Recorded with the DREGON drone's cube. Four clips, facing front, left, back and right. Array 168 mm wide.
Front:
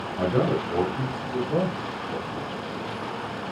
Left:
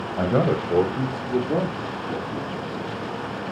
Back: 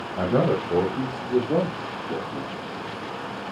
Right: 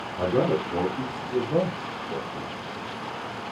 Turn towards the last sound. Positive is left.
turn(degrees=145)